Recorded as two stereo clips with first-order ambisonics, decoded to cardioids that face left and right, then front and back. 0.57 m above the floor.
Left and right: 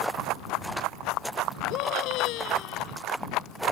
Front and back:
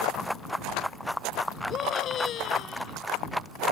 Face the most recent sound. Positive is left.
turn(degrees=55)